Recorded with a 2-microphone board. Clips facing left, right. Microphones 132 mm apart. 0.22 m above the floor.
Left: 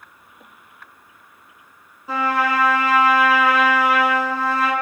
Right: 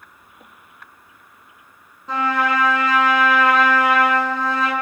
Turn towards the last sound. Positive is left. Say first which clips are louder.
# even
turn(degrees=5)  # may be behind; listen again after turning